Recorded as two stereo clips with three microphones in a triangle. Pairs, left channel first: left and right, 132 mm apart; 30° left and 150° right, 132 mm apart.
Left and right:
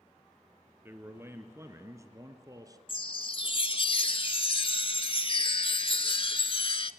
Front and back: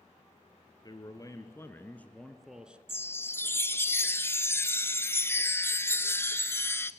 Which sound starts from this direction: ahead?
A man speaking, at 0.8 s.